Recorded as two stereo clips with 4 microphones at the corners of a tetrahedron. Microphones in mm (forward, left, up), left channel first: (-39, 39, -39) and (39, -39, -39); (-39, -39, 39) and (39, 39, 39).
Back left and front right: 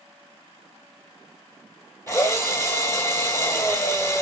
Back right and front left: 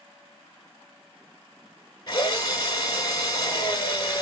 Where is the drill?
165° right, 0.8 m.